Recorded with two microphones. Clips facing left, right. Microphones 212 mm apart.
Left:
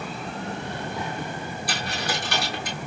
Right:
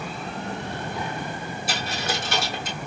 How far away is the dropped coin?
About 3 m.